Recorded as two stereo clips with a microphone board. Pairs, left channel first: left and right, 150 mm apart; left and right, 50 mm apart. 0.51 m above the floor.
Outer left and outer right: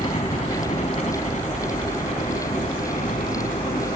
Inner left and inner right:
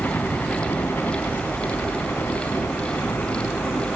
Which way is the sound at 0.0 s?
45° left (ahead or behind).